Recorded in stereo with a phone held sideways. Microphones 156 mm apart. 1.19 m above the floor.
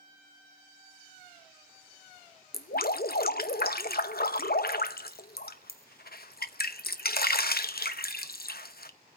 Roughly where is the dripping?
Left.